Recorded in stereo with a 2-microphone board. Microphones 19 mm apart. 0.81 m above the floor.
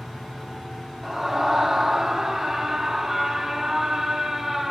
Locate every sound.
1.0 s a scream: 15° right (ahead or behind), 2 m